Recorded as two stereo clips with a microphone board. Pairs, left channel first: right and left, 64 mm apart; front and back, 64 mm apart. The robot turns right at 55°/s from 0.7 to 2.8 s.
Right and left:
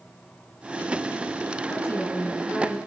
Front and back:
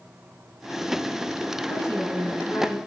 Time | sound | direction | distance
1.7 | a woman speaking | 45° right | 3.5 m